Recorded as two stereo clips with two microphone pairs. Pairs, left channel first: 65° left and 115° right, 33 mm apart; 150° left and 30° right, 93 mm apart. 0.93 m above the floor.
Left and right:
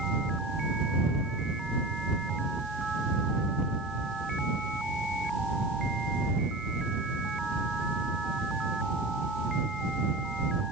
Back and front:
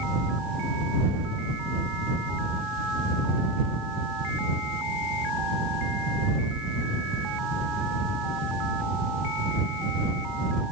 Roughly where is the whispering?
I don't hear whispering.